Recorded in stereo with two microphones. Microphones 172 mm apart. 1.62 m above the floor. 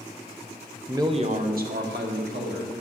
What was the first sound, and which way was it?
A man speaking, 10° right (ahead or behind).